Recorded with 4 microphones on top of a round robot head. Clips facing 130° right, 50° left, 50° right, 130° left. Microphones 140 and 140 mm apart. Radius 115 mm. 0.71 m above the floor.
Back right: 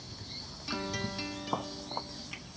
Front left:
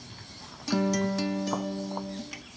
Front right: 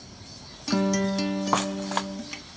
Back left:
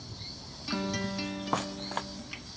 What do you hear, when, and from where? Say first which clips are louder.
0.7 s a guitar: front left 11 dB, front right 9 dB; straight ahead